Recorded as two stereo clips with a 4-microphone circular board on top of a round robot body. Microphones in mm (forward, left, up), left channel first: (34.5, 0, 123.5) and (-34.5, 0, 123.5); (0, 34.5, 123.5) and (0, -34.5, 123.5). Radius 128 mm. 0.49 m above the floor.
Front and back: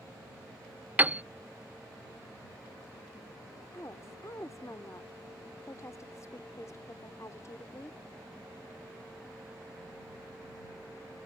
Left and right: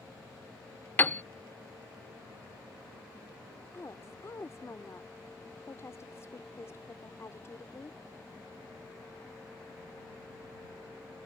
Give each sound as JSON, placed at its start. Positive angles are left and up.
{"t": 1.0, "sound": "a piano", "azimuth_deg": 130}
{"t": 3.7, "sound": "a woman speaking", "azimuth_deg": 40}